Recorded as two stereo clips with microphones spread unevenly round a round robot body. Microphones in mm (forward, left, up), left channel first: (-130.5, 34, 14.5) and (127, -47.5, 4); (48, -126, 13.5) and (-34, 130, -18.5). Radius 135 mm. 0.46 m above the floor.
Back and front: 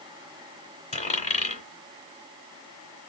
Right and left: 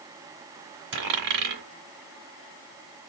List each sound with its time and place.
0.9 s a dropped coin: 95° left, 1.9 m